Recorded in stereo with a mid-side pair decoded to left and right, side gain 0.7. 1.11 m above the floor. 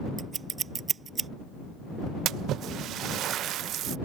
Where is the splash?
50° right.